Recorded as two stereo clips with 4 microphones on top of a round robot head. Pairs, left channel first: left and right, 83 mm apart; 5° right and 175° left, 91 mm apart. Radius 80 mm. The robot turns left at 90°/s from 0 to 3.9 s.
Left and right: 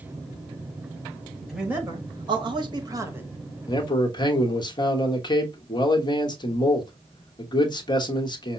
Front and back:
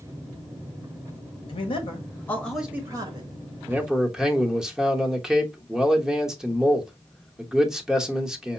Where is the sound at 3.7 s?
115° left, 1.1 m; by 8.6 s 95° left, 1.1 m.